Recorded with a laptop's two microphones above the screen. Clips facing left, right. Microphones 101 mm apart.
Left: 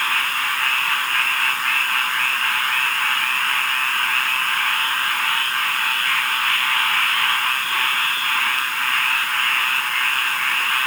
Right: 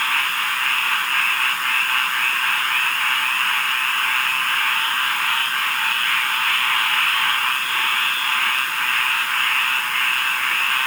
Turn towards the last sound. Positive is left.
No sound to turn to.